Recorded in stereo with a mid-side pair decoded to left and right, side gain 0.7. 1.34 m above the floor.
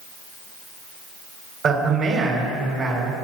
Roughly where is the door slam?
I don't hear a door slam.